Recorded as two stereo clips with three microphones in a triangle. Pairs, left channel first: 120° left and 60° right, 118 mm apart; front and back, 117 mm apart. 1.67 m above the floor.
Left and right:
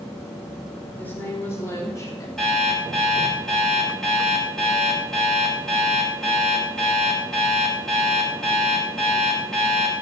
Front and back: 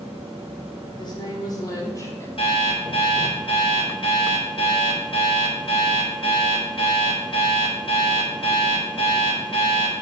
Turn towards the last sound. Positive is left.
turn(degrees=35)